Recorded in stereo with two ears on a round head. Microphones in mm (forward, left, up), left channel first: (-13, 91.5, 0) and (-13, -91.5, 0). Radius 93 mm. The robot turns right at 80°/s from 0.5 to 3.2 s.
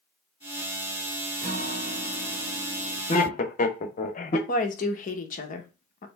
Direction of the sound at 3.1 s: 30° left (ahead or behind).